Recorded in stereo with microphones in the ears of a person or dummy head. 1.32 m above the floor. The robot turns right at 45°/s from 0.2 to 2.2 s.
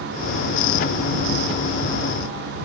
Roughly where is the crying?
No crying in this recording.